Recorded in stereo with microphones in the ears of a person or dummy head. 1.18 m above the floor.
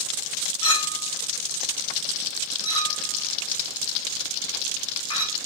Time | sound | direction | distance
0.6 | a clink | 30° left (ahead or behind) | 1.0 m